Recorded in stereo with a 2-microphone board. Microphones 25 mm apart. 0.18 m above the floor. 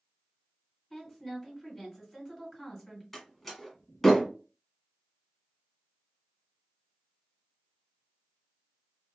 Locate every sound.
0.9 s a woman speaking: 10° left (ahead or behind), 1.7 m
3.1 s a door slam: 10° left (ahead or behind), 1.1 m